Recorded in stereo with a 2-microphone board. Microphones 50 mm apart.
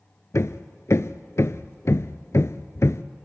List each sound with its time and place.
0.3 s hammering: 70° left (ahead or behind), 0.5 m